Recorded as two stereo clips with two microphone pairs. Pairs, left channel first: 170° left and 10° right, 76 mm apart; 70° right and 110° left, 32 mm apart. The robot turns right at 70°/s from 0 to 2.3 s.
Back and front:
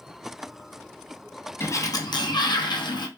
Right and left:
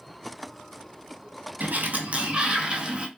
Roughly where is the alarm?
I don't hear an alarm.